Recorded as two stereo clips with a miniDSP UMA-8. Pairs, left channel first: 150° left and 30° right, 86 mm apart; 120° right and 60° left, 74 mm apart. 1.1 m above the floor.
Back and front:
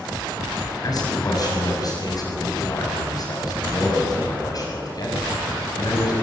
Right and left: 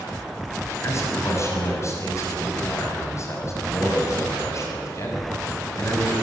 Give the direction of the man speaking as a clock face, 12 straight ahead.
6 o'clock.